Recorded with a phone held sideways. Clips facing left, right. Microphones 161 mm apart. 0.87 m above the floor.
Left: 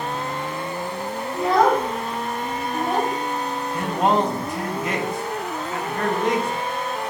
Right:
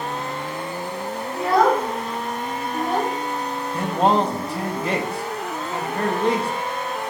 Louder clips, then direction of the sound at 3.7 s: Right 1 dB; 30° right (ahead or behind).